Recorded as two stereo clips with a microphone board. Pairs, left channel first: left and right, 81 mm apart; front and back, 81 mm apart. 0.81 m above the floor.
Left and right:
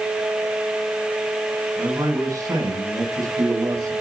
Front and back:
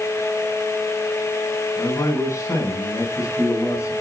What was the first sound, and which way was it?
A man speaking, 55° right.